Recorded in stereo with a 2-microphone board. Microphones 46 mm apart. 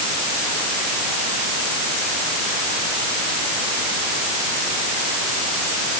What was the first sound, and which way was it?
Only background noise.